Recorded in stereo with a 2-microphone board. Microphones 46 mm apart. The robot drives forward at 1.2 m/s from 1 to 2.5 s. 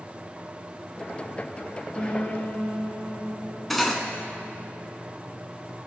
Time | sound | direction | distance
1.9 | a piano | 10° left (ahead or behind) | 3 m
3.7 | cutlery clinking | 5° left (ahead or behind) | 0.7 m